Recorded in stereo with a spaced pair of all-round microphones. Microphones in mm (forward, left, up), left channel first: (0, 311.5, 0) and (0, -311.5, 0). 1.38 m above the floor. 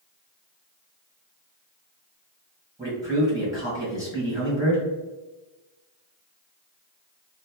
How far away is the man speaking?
About 1.7 m.